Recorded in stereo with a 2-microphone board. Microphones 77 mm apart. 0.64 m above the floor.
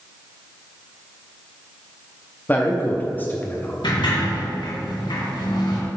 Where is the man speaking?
20° left (ahead or behind), 0.6 m.